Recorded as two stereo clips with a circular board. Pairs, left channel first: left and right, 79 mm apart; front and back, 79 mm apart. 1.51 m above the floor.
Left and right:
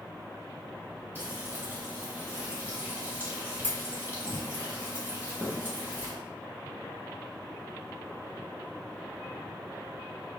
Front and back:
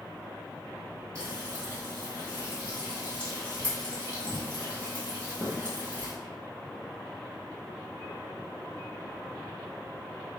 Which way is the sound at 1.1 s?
145° right.